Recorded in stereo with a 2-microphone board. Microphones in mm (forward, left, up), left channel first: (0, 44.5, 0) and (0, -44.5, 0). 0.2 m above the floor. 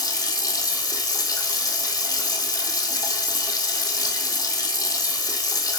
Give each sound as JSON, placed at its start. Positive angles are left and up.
{"t": 0.0, "sound": "running water", "side_deg": 45, "distance_m": 1.5}